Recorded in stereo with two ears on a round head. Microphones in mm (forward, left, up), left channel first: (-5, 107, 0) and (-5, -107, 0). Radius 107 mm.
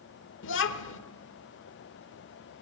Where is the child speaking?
55° left (ahead or behind), 1.3 m.